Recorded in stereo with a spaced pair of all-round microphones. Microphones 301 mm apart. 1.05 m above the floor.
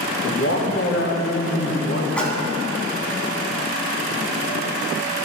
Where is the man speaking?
45° left (ahead or behind), 1.0 m.